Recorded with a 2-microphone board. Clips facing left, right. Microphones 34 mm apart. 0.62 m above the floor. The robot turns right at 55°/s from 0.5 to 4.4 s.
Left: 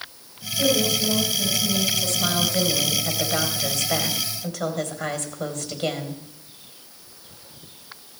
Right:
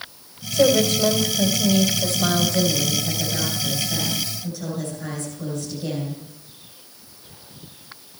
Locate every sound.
0.5 s a woman speaking: 105° right, 3 m; by 6.2 s 110° left, 3 m